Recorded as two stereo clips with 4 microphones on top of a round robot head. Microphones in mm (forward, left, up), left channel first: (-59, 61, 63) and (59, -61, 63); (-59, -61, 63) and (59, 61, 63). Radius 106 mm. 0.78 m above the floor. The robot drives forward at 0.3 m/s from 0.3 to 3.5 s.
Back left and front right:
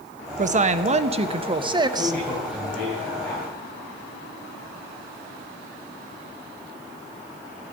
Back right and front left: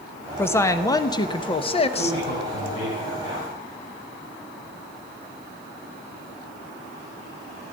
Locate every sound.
0.4 s a woman speaking: 60° right, 1.0 m; by 2.2 s 105° right, 1.0 m
1.9 s a man speaking: 140° right, 6 m; by 3.5 s 145° right, 6.5 m